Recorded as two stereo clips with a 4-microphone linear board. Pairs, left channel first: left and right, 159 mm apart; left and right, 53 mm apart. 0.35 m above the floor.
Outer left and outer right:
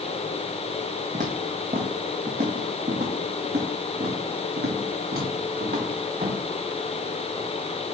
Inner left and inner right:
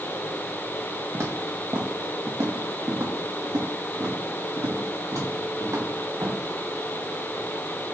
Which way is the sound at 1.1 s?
55° right (ahead or behind).